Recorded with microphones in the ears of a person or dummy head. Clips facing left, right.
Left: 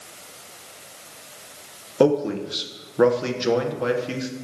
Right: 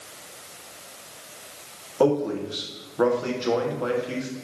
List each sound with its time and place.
2.0 s a man speaking: 35° left (ahead or behind), 1.1 m